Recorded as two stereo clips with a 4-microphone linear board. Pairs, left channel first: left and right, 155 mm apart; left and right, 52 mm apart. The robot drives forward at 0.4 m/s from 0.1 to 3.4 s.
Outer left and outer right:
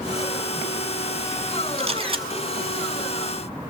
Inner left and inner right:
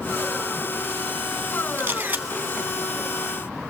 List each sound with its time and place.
1.8 s a camera shutter: 40° right (ahead or behind), 0.9 m; by 2.3 s 35° right (ahead or behind), 1.0 m